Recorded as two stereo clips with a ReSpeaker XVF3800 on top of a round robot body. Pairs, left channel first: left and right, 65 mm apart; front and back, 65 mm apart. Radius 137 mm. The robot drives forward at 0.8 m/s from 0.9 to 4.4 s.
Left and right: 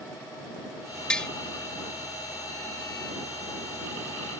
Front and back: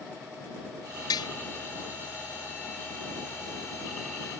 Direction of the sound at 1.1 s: 15° left.